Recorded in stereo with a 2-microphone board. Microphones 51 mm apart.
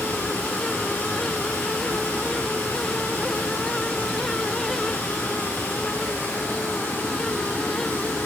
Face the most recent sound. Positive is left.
turn(degrees=45)  # may be behind; listen again after turning